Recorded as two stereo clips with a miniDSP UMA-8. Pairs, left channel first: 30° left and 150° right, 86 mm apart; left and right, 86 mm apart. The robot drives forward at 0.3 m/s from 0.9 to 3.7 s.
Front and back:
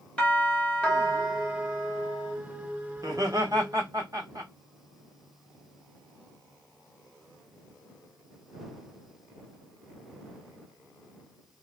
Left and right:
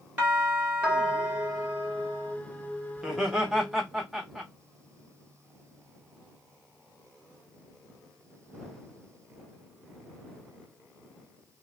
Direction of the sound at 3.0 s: 175° right.